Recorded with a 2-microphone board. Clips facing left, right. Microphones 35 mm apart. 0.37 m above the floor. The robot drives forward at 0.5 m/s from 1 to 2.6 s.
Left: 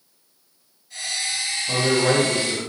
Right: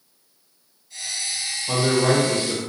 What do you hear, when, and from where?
1.7 s a man speaking: 30° right (ahead or behind), 1.2 m; by 2.6 s 25° right (ahead or behind), 1.3 m